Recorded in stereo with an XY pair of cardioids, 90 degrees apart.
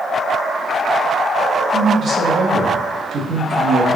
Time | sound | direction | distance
1.7 | a man speaking | 50° right | 0.9 m